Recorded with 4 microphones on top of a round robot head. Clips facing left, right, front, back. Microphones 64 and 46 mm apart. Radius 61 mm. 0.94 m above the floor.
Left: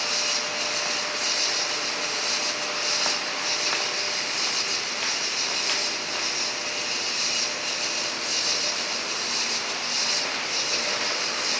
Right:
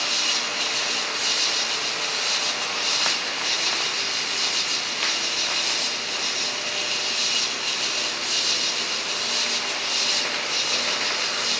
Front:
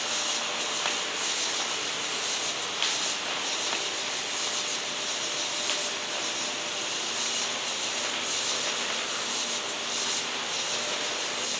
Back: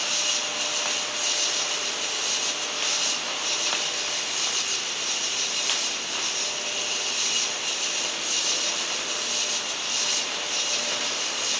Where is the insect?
155° left.